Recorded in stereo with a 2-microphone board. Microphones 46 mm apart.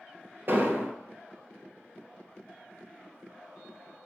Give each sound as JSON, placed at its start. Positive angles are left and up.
{"t": 0.5, "sound": "an explosion", "side_deg": -50, "distance_m": 1.2}